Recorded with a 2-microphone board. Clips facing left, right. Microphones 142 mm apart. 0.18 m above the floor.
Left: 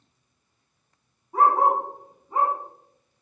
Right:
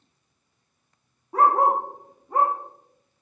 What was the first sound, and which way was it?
A dog barking, 70° right (ahead or behind).